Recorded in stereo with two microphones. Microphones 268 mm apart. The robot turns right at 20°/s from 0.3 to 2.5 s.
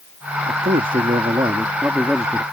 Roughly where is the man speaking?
Ahead right.